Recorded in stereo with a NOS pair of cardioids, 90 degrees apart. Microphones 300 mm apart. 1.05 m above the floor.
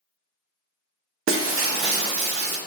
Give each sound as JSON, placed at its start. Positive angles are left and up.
{"t": 1.3, "sound": "breaking glass", "azimuth_deg": -45, "distance_m": 0.6}